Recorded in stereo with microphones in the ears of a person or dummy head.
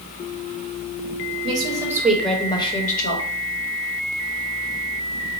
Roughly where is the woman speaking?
Right.